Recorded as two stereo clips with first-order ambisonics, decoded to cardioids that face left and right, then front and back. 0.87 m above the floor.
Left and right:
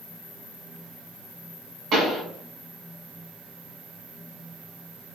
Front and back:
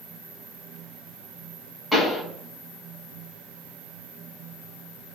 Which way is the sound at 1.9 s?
95° right.